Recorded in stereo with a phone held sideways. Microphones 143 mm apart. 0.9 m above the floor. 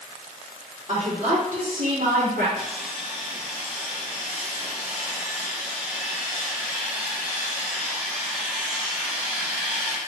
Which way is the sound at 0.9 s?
50° right (ahead or behind).